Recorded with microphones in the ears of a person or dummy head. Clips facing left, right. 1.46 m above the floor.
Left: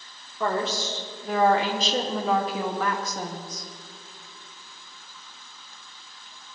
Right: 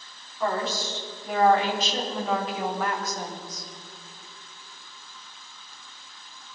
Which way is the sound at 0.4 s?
55° left (ahead or behind).